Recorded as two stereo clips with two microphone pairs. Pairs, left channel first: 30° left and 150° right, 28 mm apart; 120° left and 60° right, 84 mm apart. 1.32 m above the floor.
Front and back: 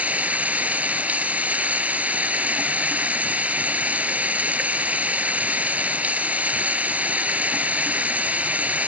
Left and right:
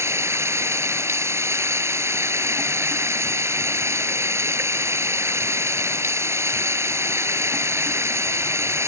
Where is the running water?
120° right.